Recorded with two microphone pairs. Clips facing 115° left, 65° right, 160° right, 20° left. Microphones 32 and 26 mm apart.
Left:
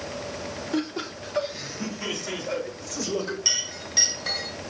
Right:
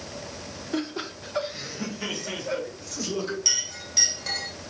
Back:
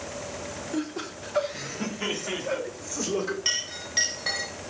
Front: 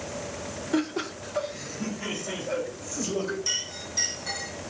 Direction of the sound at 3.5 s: 170° right.